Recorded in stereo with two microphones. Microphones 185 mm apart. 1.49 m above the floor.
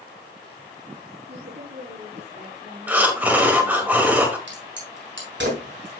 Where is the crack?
85° right, 5 m.